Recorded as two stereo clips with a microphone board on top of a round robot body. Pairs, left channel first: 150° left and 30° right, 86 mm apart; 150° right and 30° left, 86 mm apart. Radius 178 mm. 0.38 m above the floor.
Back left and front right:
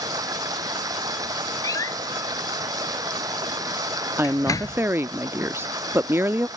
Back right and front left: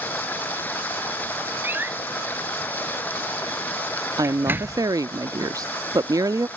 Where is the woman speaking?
20° left.